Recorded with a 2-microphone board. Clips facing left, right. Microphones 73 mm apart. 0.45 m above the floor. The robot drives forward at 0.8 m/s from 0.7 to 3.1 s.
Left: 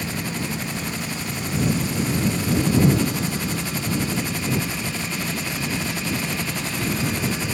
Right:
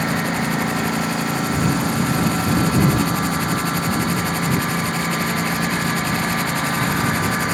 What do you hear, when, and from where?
0.0 s a lawn mower: 65° right (ahead or behind); by 7.5 s 55° right (ahead or behind)